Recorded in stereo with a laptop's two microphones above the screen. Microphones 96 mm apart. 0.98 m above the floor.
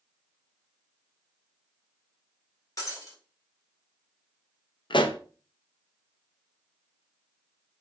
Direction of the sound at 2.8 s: 40° left (ahead or behind).